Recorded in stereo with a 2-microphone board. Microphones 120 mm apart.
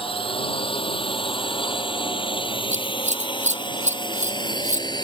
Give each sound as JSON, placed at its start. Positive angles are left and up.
{"t": 0.0, "sound": "a drone", "side_deg": 50}
{"t": 2.7, "sound": "scissors", "side_deg": -75}